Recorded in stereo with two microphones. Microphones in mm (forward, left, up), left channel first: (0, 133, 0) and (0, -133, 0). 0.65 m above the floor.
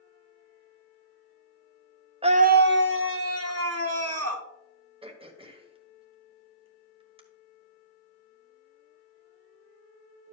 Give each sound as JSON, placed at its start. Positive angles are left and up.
{"t": 2.2, "sound": "a scream", "side_deg": -20, "distance_m": 0.5}
{"t": 5.0, "sound": "throat clearing", "side_deg": -20, "distance_m": 1.1}